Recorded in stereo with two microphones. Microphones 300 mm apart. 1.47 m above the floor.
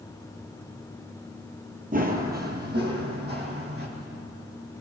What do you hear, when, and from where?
1.9 s running footsteps: 30° right (ahead or behind), 1.7 m; by 3.9 s 35° right (ahead or behind), 4 m